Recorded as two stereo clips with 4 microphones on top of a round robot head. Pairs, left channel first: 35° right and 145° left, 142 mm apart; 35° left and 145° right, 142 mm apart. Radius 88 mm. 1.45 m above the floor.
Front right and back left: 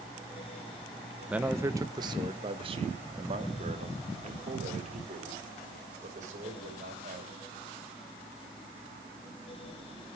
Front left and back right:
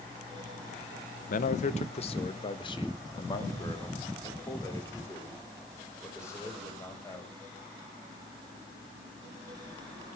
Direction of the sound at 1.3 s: 60° left.